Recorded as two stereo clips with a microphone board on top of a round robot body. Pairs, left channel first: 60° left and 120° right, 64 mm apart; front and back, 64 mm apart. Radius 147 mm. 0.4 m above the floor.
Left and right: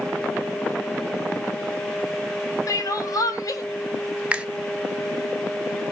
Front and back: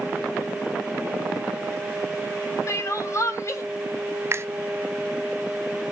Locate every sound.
2.7 s crying: 40° left, 1.9 m
4.3 s a finger snap: straight behind, 1.1 m